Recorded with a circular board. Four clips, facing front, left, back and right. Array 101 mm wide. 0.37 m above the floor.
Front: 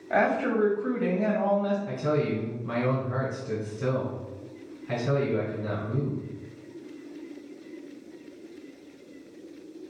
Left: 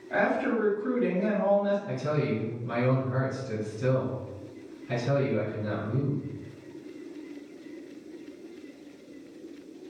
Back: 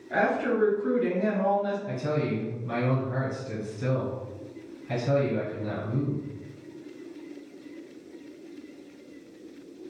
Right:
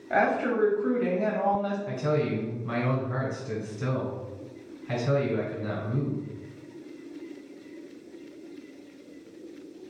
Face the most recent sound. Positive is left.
turn(degrees=-45)